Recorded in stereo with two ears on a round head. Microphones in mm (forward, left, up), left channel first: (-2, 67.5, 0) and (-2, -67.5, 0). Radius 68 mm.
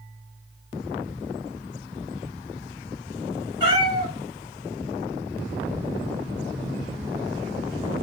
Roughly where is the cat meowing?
Right.